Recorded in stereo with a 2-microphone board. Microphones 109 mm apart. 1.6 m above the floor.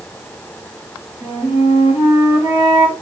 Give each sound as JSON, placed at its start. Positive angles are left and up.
{"t": 1.2, "sound": "a flute", "side_deg": 65, "distance_m": 1.2}